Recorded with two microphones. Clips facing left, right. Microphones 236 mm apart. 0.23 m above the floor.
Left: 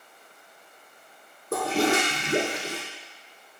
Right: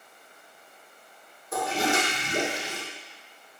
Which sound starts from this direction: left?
A toilet flushing, at 1.5 s.